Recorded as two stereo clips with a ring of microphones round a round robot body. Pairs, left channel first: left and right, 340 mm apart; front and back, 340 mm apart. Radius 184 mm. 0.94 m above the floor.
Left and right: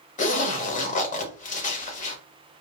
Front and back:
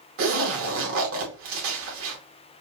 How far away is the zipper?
About 1.1 m.